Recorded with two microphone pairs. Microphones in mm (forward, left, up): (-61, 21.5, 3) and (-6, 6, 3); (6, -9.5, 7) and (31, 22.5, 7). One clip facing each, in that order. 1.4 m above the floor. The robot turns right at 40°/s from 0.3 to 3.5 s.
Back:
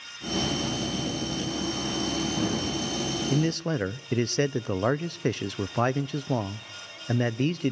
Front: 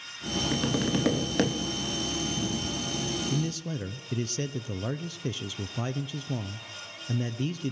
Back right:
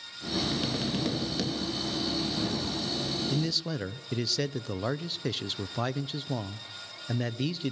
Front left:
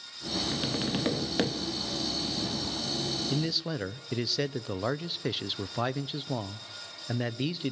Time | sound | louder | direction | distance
0.5 | tapping | front 2 dB, even | 30° right | 2 m
3.3 | a man speaking | back 6 dB, even | 125° left | 0.5 m